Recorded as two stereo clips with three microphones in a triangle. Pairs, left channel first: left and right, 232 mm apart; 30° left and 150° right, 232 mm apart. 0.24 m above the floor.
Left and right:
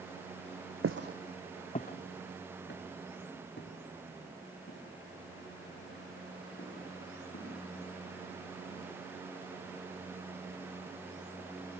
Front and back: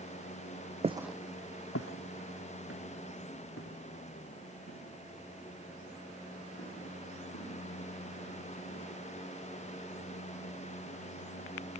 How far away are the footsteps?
About 0.6 m.